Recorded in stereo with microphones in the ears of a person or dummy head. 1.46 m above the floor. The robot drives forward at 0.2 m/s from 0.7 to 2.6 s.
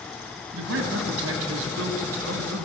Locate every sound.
0.5 s a man speaking: 80° right, 1.8 m; by 2.7 s 75° right (ahead or behind), 1.8 m